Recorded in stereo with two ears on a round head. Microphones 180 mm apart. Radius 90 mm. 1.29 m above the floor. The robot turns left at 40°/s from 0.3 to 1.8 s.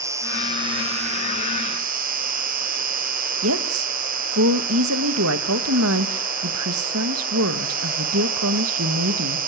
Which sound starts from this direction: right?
A woman speaking, at 3.4 s.